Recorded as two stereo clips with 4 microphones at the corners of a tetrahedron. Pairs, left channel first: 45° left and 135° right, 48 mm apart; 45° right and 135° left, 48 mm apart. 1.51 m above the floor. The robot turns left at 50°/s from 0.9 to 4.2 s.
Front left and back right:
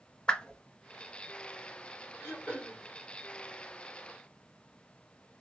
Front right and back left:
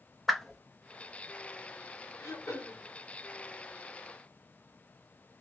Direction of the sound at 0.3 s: 35° left.